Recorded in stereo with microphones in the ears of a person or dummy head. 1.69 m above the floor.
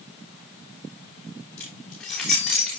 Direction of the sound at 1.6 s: 5° left (ahead or behind).